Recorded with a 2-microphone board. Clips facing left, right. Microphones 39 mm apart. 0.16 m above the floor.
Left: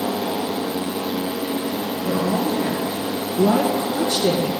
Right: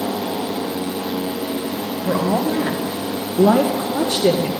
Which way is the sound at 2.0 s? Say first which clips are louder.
Right 3 dB; 55° right (ahead or behind).